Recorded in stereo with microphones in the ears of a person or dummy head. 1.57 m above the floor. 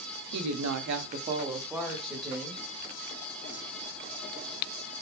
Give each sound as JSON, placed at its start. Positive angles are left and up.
{"t": 0.3, "sound": "a woman speaking", "side_deg": -85, "distance_m": 0.6}